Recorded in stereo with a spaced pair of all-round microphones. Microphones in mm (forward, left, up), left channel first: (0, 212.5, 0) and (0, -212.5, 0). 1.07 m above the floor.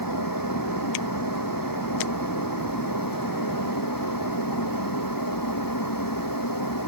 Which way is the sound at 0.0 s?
50° left (ahead or behind).